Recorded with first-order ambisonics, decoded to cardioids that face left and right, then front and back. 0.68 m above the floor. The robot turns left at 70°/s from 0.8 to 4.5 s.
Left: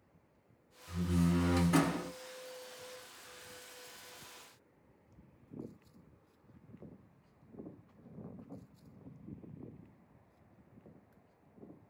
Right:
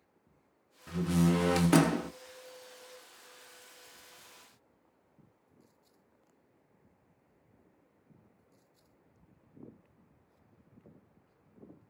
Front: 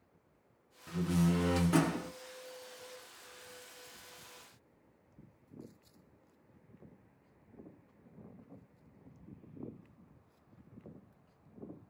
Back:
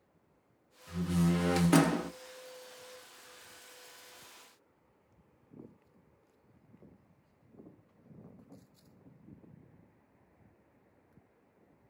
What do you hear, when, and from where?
0.9 s a door slam: 65° right, 0.5 m; by 2.1 s 150° right, 0.5 m